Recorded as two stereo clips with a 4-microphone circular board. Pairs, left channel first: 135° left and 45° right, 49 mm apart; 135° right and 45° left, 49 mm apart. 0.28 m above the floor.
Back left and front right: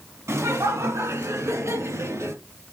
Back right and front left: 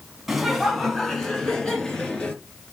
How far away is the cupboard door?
No cupboard door in this recording.